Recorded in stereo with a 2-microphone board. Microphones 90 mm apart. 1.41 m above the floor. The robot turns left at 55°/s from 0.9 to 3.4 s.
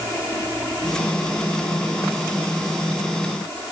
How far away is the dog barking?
No dog barking in this recording.